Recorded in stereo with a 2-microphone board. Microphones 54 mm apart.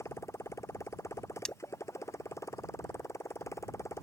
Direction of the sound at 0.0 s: 60° left (ahead or behind).